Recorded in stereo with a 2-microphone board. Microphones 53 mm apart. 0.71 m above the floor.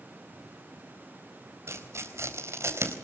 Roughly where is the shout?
No shout in this recording.